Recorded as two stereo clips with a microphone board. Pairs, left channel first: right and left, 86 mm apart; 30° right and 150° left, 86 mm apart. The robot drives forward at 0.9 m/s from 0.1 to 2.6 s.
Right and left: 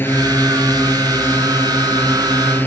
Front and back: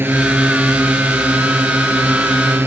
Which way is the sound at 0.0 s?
150° right.